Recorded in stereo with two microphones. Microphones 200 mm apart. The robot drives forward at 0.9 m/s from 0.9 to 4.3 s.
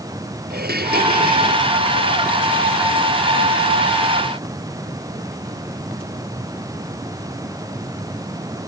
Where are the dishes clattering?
50° right (ahead or behind); by 1.7 s 40° right (ahead or behind).